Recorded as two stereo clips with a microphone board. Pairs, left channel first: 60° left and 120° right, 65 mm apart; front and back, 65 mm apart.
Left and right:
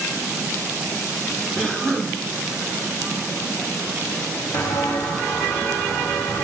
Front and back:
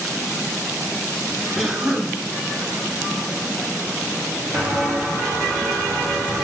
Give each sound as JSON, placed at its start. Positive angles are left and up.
{"t": 1.6, "sound": "a cough", "azimuth_deg": 110, "distance_m": 1.1}
{"t": 4.5, "sound": "footsteps", "azimuth_deg": 90, "distance_m": 2.5}